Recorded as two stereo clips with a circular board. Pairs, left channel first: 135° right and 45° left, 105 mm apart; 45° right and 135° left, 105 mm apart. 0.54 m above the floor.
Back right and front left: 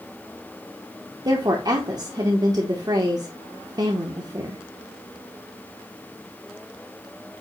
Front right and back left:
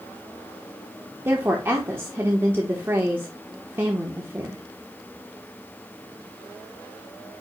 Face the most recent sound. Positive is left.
turn(degrees=75)